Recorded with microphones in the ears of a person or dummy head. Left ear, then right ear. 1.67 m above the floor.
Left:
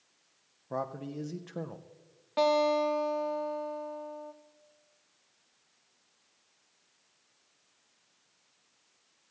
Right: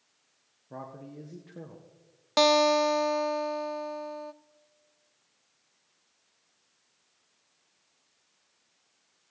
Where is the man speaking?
45° left (ahead or behind), 0.6 m.